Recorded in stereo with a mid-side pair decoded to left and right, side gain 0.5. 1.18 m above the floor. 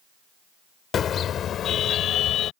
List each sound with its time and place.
0.9 s a car horn: 50° left; by 2.5 s 65° left